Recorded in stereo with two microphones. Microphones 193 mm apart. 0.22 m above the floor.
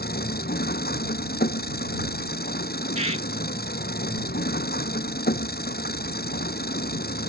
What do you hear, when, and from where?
0.0 s an engine running: 55° left (ahead or behind)
3.0 s a bird: 35° right (ahead or behind)